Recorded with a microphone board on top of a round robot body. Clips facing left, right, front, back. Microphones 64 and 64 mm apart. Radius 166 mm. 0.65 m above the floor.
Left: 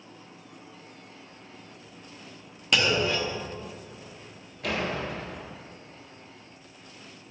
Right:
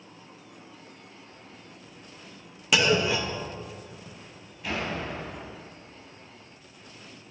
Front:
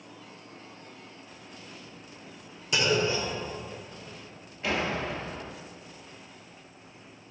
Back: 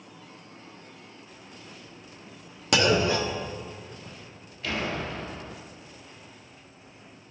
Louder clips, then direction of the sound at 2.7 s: Right 2 dB, back 4 dB; 175° right.